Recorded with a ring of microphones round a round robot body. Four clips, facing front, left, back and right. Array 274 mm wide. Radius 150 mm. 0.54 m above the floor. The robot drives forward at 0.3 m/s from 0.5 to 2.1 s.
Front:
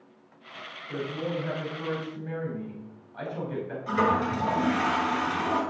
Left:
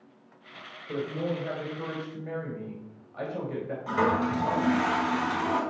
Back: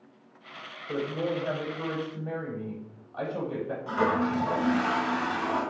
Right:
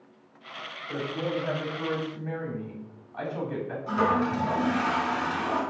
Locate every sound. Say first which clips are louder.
0.9 s a man speaking: even, back 2 dB; 150° left, 3.5 m; by 3.8 s 155° left, 3.5 m
3.9 s a toilet flushing: right 1 dB, front 1 dB; 75° left, 4 m